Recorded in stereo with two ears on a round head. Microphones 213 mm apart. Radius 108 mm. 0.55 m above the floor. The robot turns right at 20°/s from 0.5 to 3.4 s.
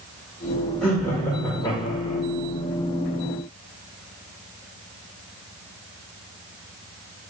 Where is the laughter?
5° left (ahead or behind), 1.7 m; by 2.2 s 30° left (ahead or behind), 1.7 m.